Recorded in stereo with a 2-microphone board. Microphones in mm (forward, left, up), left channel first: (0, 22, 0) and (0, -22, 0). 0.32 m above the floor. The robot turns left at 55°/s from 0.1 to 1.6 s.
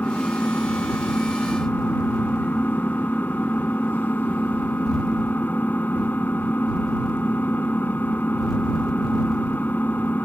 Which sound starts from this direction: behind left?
An engine running, at 0.0 s.